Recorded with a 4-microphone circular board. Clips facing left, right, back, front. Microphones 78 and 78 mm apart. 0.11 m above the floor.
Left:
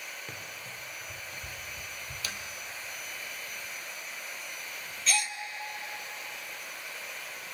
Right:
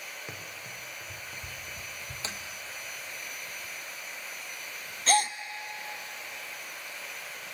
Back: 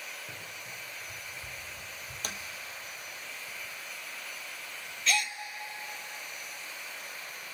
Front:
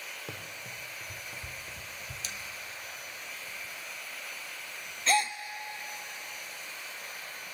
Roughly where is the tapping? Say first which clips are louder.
Right 1 dB, back 5 dB; behind right.